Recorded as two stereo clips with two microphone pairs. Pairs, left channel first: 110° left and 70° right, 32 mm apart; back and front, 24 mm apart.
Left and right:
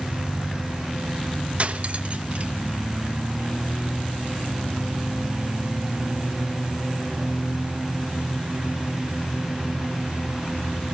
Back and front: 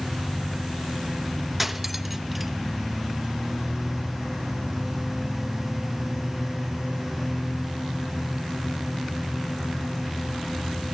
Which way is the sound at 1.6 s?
80° right.